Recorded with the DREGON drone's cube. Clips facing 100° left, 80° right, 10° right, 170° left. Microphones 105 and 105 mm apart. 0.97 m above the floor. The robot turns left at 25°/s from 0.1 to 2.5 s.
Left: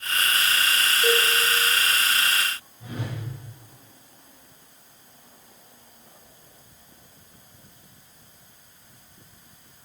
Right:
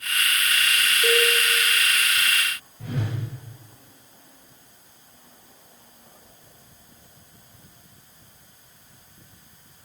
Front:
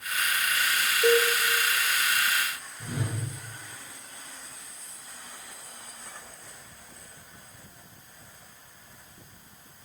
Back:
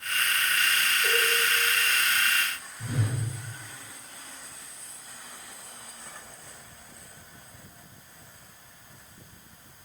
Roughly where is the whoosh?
Right.